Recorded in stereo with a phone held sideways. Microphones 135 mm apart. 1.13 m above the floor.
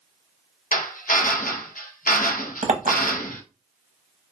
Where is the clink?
60° right (ahead or behind), 0.6 m.